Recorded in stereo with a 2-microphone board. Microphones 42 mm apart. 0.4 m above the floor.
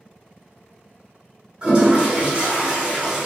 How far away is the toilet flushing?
About 1.1 m.